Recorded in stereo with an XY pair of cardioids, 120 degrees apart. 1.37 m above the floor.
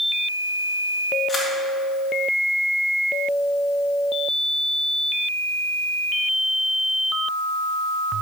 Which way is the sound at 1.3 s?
25° left.